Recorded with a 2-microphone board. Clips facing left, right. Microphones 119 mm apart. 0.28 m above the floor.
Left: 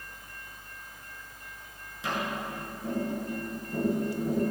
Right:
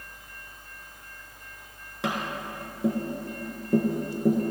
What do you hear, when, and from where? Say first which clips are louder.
2.0 s tapping: right 2 dB; 70° right (ahead or behind), 3 m